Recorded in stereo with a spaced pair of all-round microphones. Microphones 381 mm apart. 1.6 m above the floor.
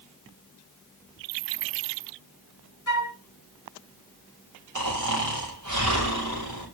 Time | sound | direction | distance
2.9 | a flute | 50° left (ahead or behind) | 1.5 m
4.8 | snoring | 50° right (ahead or behind) | 4.5 m